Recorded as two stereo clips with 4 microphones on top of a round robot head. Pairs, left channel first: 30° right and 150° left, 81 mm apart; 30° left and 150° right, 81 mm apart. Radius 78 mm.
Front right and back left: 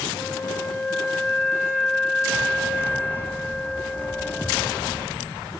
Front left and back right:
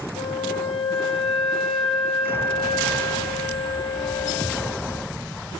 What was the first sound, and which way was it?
A flute, 40° left.